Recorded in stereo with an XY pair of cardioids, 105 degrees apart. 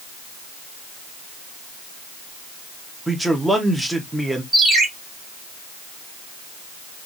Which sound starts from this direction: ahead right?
A ringtone, at 4.5 s.